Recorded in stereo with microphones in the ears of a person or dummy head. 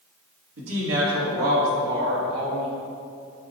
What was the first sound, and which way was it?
A woman speaking, 85° right.